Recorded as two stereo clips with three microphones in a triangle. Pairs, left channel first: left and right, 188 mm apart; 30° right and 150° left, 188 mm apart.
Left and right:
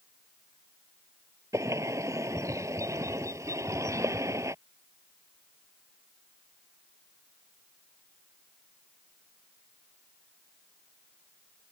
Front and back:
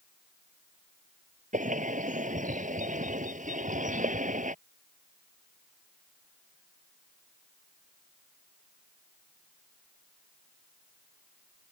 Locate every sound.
1.5 s a bird: 165° right